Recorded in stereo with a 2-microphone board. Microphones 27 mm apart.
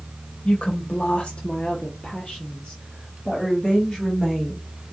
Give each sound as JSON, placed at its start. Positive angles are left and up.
{"t": 0.5, "sound": "a woman speaking", "side_deg": 55, "distance_m": 1.0}